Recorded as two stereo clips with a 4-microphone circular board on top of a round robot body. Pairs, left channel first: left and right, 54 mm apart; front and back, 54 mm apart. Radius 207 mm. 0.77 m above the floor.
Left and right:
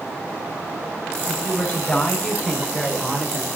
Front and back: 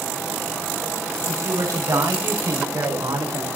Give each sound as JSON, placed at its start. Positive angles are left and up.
{"t": 1.2, "sound": "a woman speaking", "azimuth_deg": 150, "distance_m": 6.5}